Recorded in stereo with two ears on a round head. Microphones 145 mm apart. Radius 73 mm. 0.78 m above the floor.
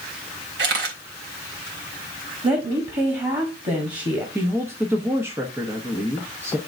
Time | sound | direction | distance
0.6 | a camera shutter | 80° right | 2.5 m
2.4 | a woman speaking | 30° right (ahead or behind) | 1.7 m
4.3 | a woman speaking | 15° right (ahead or behind) | 1.1 m